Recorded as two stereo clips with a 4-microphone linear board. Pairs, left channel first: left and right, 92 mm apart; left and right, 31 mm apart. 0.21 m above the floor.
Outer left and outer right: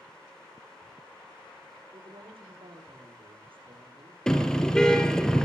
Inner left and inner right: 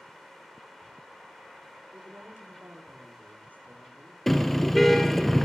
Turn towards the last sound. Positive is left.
turn(degrees=5)  # may be behind; listen again after turning